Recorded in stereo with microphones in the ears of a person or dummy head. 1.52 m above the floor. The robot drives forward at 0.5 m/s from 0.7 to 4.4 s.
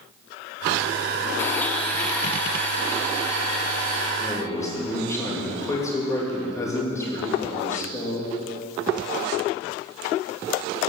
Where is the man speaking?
20° left (ahead or behind), 3 m.